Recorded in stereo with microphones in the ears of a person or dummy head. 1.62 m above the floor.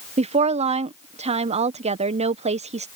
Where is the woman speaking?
30° right (ahead or behind).